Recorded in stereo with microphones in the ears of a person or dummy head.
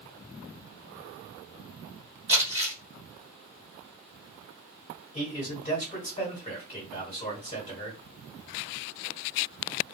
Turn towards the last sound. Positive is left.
turn(degrees=35)  # may be behind; listen again after turning